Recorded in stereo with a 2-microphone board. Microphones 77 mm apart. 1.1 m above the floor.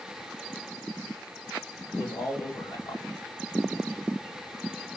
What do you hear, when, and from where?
1.9 s a man speaking: 65° left (ahead or behind), 1.8 m